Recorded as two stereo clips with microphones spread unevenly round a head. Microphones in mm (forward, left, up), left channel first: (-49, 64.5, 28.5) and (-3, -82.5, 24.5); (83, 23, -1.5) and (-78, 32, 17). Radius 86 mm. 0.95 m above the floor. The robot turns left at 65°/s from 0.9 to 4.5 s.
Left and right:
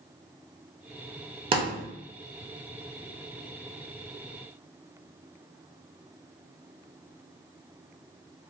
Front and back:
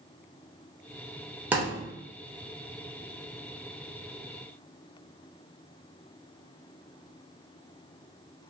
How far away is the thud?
About 0.7 m.